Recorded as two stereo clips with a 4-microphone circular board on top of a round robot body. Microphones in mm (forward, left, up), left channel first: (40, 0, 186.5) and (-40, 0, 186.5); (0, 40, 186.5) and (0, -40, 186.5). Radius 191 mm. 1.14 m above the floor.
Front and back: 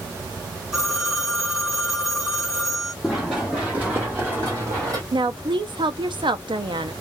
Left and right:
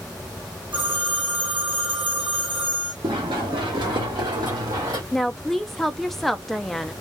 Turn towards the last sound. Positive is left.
turn(degrees=180)